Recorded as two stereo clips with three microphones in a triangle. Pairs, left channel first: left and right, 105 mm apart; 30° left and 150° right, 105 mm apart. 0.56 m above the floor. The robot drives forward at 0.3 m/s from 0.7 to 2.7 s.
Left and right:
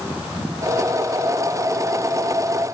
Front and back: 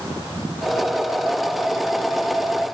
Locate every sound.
Only background noise.